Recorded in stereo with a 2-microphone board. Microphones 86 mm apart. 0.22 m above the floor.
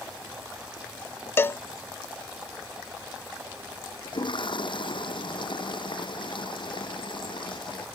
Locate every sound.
1.4 s a cowbell: 30° left (ahead or behind)
4.0 s a toilet flushing: 65° left (ahead or behind)